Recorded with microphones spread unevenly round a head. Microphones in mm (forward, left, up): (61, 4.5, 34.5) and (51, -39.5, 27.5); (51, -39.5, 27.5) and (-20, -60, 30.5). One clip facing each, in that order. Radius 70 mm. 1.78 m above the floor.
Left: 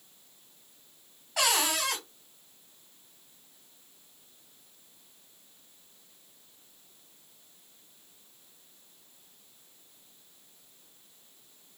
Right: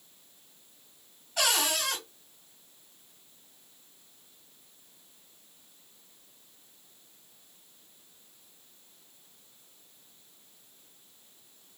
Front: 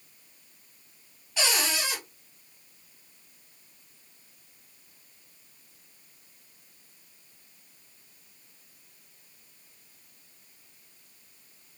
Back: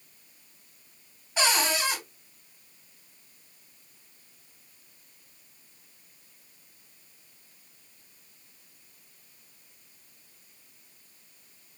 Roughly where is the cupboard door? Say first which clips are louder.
Left 1 dB, back 3 dB; behind left.